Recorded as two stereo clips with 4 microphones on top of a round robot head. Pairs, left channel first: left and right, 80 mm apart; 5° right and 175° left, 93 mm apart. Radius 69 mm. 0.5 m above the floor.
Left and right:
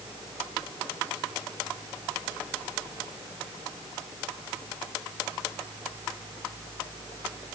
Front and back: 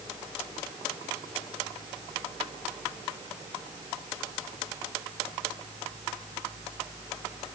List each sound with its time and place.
Only background noise.